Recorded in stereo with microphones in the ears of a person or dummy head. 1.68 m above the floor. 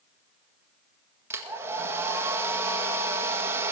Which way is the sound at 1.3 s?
15° right (ahead or behind).